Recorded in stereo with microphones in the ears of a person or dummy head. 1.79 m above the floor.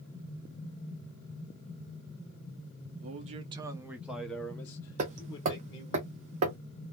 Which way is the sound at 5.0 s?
35° right (ahead or behind).